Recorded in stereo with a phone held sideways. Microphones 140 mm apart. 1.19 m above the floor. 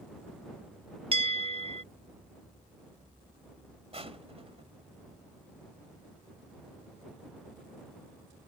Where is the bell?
40° right (ahead or behind).